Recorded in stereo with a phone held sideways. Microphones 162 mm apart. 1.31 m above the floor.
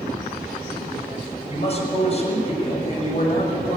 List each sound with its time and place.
1.5 s a man speaking: 40° left (ahead or behind), 7 m